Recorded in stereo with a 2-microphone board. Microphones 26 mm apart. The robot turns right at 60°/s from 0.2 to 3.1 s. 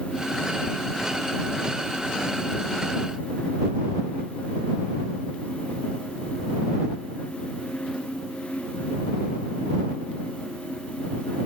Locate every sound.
Only background noise.